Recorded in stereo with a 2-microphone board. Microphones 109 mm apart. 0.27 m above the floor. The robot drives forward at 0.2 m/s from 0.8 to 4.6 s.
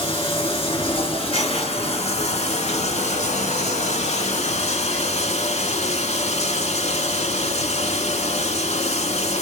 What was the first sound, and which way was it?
Running water, 55° left (ahead or behind).